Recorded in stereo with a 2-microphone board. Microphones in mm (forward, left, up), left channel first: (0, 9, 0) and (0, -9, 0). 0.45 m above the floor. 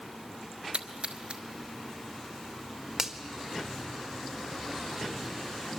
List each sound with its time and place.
0.7 s a splash: 65° right (ahead or behind), 1.3 m
3.0 s a finger snap: 20° right (ahead or behind), 1.5 m